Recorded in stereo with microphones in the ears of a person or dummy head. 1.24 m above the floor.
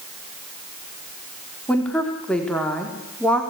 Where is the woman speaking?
5° left (ahead or behind), 3.5 m.